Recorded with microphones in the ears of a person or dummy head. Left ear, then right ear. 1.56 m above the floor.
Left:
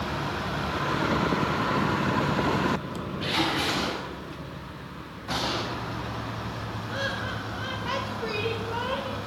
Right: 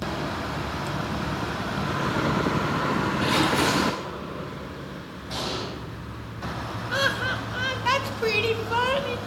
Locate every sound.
3.2 s a splash: 45° right (ahead or behind), 3 m
5.3 s an explosion: 45° left (ahead or behind), 1.8 m
6.9 s laughter: 40° right (ahead or behind), 0.5 m